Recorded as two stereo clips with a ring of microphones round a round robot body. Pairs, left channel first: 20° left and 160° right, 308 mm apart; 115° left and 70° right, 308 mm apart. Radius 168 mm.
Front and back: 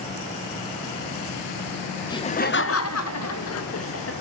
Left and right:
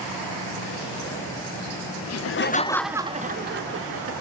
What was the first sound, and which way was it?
Laughter, 100° left.